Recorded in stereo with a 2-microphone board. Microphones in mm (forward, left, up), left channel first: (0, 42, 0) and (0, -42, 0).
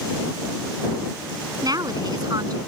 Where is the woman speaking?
50° right (ahead or behind).